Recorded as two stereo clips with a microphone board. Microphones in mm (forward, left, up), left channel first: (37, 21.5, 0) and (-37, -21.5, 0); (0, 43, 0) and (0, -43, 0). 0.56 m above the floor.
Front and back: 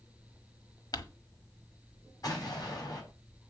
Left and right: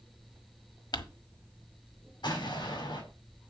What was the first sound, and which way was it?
Crumpling, 65° left.